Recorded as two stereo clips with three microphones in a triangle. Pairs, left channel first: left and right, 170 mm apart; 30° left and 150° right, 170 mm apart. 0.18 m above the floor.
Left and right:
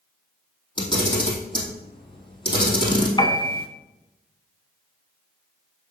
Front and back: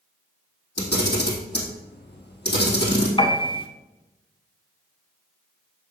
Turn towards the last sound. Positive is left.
turn(degrees=55)